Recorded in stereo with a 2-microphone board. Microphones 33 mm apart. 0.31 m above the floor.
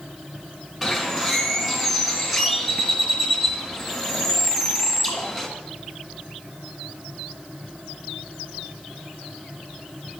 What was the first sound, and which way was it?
A bird, centre (ahead or behind).